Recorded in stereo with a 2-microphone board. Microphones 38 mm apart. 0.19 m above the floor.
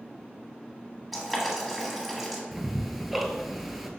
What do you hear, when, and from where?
1.1 s boiling: centre (ahead or behind), 1.2 m
2.5 s ticking: 5° right (ahead or behind), 0.6 m